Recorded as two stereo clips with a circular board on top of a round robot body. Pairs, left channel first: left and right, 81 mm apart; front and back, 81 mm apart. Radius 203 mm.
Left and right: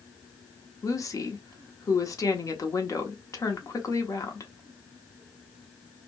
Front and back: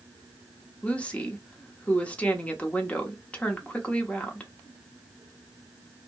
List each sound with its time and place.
0.8 s a woman speaking: 65° left, 1.1 m